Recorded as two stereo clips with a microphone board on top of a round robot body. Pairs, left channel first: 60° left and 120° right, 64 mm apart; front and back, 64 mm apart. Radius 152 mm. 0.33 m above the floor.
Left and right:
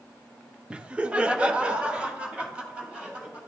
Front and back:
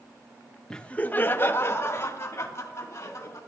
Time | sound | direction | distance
0.7 | laughter | 65° right | 0.9 m